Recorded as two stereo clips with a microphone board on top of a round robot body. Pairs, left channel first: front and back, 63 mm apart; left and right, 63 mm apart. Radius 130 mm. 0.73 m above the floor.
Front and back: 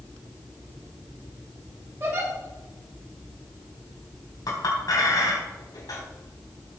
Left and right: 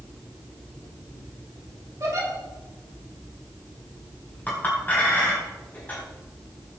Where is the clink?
25° left, 4 m.